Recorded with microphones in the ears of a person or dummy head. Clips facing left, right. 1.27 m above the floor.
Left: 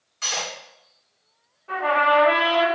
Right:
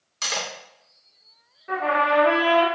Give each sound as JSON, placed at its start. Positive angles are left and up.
{"t": 0.2, "sound": "cutlery clinking", "side_deg": -55, "distance_m": 0.8}
{"t": 1.7, "sound": "a trumpet", "side_deg": -25, "distance_m": 0.9}